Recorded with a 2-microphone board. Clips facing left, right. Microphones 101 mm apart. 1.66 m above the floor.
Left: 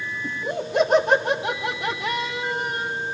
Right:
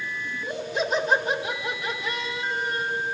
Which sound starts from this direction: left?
Laughter, at 0.2 s.